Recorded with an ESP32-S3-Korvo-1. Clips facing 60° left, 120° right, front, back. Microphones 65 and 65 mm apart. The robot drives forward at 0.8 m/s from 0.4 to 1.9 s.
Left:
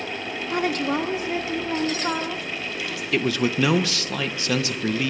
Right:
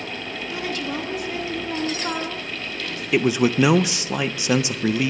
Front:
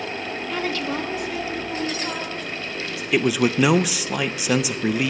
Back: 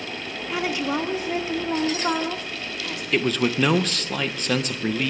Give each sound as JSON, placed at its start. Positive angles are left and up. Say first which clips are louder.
{"t": 0.5, "sound": "a woman speaking", "louder": "left 5 dB, back 2 dB", "azimuth_deg": 95, "distance_m": 1.1}
{"t": 3.1, "sound": "a man speaking", "louder": "right 4 dB, front 3 dB", "azimuth_deg": -70, "distance_m": 0.5}